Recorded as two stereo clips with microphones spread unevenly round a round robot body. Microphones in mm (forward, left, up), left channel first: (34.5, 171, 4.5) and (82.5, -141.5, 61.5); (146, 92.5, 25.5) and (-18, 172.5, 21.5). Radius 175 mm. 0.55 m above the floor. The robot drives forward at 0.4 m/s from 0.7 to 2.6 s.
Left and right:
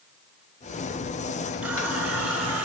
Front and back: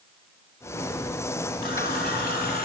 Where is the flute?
No flute in this recording.